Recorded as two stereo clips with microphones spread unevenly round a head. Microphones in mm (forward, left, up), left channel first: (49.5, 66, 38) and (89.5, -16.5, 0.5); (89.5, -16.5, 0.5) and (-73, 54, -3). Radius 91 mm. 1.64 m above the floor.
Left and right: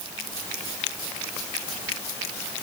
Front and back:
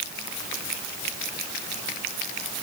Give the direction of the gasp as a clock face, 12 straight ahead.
No gasp in this recording.